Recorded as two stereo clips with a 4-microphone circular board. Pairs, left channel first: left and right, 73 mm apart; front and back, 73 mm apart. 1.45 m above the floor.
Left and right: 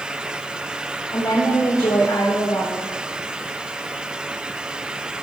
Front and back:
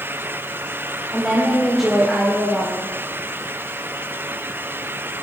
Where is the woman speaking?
95° left, 1.5 m.